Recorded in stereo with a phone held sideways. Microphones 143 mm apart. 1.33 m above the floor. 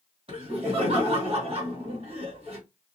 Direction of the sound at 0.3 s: 40° right (ahead or behind).